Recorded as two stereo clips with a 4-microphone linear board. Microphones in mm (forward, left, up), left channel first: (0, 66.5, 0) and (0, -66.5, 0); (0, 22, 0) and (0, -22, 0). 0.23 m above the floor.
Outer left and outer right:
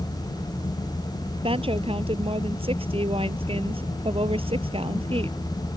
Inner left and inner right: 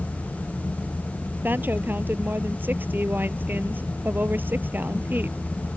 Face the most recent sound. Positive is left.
turn(degrees=-45)  # may be behind; listen again after turning